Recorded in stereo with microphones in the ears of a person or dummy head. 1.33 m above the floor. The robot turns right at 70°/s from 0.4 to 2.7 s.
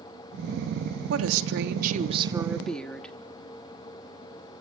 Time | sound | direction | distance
1.1 | a woman speaking | 105° right | 3 m